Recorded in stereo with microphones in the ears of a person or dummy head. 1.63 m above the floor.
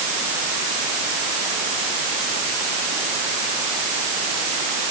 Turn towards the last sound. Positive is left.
No sound to turn to.